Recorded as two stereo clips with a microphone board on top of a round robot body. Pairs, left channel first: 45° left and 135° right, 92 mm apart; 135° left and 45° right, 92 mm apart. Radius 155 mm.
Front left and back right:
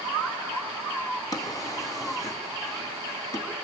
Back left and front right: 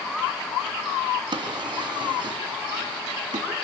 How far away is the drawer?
About 3.5 m.